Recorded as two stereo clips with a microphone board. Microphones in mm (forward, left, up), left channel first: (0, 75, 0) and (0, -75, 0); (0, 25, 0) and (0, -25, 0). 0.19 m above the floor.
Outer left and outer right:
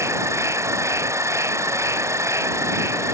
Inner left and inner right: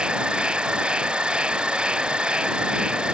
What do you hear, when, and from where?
0.0 s an insect: 20° right (ahead or behind)